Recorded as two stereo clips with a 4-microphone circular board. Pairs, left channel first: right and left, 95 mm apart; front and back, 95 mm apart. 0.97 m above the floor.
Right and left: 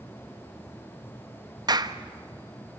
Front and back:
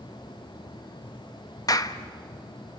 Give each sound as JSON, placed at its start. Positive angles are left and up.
{"t": 1.7, "sound": "a clap", "azimuth_deg": 45, "distance_m": 0.8}